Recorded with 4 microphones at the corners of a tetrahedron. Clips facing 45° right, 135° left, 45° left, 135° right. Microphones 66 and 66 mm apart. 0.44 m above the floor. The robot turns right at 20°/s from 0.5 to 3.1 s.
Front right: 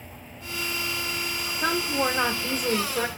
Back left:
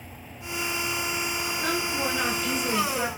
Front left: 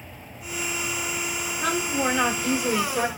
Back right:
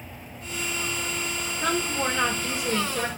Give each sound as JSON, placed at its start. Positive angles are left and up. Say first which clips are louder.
{"t": 1.6, "sound": "a woman speaking", "louder": "front right 4 dB, front left 1 dB", "azimuth_deg": -50, "distance_m": 1.1}